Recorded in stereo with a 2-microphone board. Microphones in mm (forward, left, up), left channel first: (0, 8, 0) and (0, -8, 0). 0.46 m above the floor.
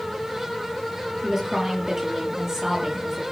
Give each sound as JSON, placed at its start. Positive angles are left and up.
{"t": 1.2, "sound": "a woman speaking", "side_deg": -30, "distance_m": 9.0}